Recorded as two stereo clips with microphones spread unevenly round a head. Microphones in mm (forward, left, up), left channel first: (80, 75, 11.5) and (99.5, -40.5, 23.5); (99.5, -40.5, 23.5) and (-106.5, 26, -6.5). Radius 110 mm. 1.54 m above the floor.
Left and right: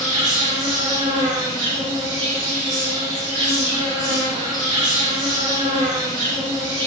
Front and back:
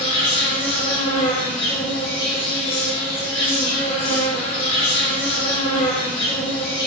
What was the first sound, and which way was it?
An insect, 85° right.